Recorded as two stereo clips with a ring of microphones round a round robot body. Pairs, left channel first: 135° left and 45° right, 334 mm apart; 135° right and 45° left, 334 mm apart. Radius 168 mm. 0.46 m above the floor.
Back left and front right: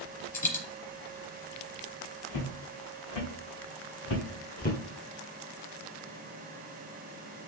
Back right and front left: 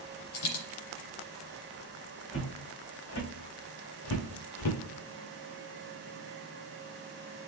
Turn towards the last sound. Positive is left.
turn(degrees=-160)